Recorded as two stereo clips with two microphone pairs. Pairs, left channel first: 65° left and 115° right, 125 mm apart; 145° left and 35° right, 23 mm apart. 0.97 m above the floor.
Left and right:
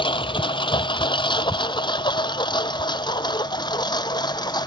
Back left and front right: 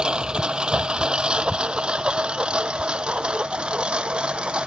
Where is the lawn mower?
15° left; by 4.7 s 5° left.